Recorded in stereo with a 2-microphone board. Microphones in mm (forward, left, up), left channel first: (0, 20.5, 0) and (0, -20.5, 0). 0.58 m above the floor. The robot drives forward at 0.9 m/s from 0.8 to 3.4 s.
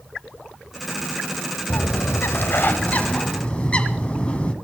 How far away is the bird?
About 0.7 m.